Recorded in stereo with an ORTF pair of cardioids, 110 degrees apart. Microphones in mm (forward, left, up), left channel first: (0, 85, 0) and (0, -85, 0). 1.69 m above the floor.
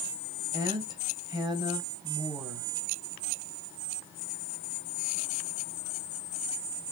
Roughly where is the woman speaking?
Ahead right.